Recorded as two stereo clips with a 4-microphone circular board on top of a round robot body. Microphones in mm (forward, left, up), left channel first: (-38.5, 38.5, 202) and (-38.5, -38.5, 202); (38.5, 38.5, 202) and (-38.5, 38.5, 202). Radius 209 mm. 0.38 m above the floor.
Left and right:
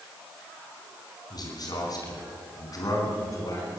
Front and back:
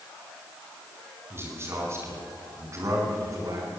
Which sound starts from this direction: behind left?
A man speaking, at 1.3 s.